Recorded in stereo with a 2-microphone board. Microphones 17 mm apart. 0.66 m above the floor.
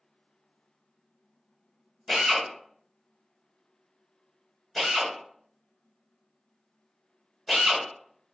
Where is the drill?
10° left (ahead or behind), 1.4 m.